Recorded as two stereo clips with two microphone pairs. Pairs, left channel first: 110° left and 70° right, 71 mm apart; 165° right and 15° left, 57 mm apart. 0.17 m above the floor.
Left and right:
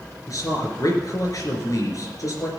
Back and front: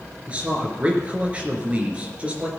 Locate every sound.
0.3 s a man speaking: 80° left, 3 m